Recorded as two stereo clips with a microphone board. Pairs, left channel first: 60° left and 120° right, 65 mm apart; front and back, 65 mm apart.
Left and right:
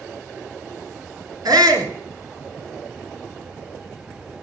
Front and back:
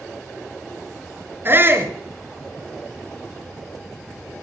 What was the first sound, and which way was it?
A shout, 125° right.